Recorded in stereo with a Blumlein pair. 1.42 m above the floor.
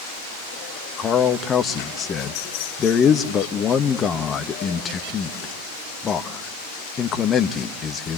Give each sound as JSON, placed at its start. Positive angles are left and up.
{"t": 1.0, "sound": "a man speaking", "azimuth_deg": 25, "distance_m": 1.5}